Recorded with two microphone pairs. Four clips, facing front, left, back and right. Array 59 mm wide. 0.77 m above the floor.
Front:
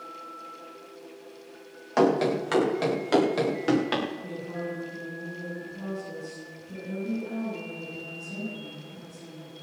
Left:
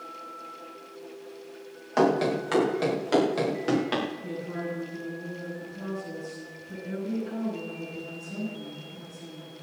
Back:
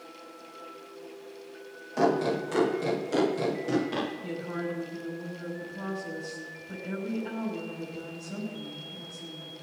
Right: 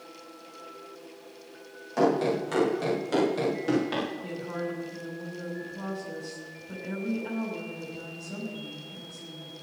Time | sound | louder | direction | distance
2.0 | running footsteps | left 1 dB, front 3 dB | 30° left | 7.5 m
4.2 | a woman speaking | even, back 1 dB | 130° right | 6.5 m